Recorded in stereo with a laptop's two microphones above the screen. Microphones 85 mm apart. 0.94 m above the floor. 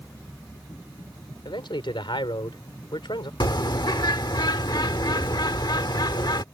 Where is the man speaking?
80° left.